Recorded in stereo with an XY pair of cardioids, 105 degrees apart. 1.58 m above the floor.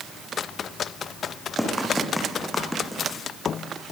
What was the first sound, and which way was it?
Running footsteps, 5° left.